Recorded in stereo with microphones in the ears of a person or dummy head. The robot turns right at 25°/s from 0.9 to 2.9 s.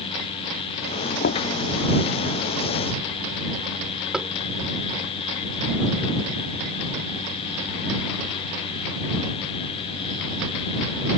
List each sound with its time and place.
1.2 s knocking: 60° left (ahead or behind); by 1.5 s 65° left (ahead or behind)
4.1 s tapping: 5° right (ahead or behind)